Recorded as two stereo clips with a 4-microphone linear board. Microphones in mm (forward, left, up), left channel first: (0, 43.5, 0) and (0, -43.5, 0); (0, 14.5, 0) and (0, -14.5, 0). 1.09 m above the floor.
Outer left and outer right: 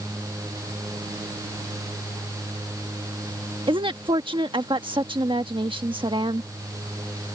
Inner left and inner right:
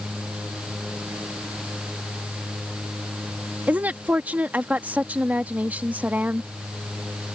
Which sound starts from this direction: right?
A woman speaking, at 3.7 s.